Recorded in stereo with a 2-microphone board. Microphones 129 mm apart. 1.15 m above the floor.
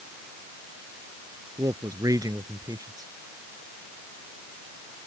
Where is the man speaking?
30° right (ahead or behind).